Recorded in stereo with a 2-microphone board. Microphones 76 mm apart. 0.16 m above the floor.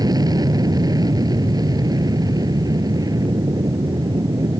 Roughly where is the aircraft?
Right.